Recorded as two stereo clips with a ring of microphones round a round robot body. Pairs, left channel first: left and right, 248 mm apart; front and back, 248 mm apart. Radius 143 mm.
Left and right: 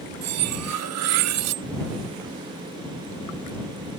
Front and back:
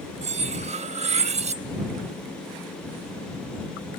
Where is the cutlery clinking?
115° right.